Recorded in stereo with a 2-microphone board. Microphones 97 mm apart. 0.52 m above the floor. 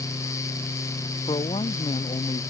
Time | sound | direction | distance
1.3 | a man speaking | 75° left (ahead or behind) | ?